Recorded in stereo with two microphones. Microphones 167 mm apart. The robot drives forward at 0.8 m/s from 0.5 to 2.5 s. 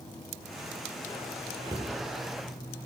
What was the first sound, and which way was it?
A cupboard door, 25° right (ahead or behind).